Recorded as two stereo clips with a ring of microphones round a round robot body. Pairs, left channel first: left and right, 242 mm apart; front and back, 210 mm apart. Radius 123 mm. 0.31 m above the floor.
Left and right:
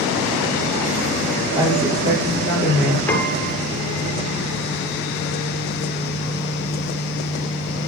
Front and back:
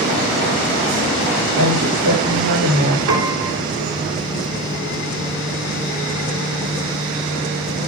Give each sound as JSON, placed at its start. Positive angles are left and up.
{"t": 1.5, "sound": "a woman speaking", "azimuth_deg": -165, "distance_m": 7.5}
{"t": 3.1, "sound": "a piano", "azimuth_deg": 175, "distance_m": 2.5}